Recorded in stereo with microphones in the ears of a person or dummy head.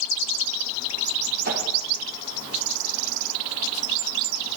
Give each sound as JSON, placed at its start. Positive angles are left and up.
{"t": 1.4, "sound": "a whoosh", "side_deg": -50, "distance_m": 1.1}